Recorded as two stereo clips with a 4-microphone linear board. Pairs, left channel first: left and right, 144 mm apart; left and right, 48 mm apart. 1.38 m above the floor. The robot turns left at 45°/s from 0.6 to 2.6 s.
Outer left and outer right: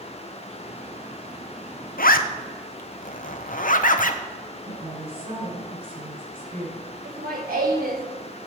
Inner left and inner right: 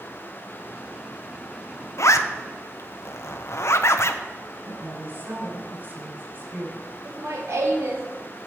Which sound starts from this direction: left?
A zipper, at 2.0 s.